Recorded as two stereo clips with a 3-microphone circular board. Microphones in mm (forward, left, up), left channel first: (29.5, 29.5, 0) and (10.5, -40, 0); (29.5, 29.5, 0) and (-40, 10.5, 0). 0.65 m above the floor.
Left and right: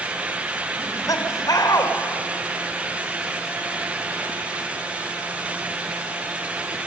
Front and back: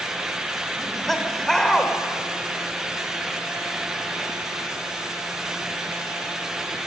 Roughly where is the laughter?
Left.